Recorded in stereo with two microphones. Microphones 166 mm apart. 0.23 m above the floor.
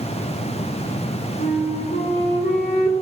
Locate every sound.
1.4 s a flute: 70° left (ahead or behind), 4.5 m